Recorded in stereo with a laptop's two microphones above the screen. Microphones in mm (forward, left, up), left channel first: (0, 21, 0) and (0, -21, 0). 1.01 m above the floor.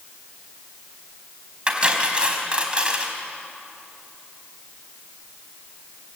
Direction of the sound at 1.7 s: 25° right (ahead or behind).